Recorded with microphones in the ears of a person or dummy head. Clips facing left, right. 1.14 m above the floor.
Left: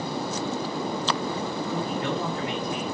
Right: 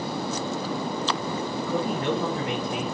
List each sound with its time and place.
1.7 s a man speaking: 70° right (ahead or behind), 1.8 m